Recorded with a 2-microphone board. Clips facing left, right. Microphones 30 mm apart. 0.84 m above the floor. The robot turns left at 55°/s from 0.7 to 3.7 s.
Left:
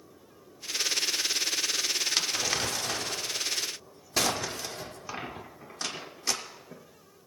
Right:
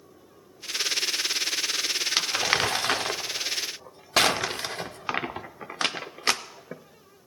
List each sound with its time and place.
2.2 s crumpling: 25° right (ahead or behind), 0.6 m; by 7.3 s 55° right (ahead or behind), 0.6 m